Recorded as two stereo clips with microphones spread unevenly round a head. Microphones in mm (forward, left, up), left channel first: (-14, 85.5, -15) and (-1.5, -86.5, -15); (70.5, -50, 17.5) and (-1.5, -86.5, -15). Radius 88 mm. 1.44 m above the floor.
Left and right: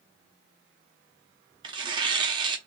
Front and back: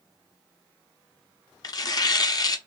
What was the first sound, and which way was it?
Tearing paper, 25° right.